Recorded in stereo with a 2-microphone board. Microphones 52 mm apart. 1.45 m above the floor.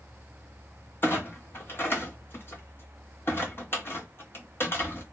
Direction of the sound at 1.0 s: 40° left (ahead or behind).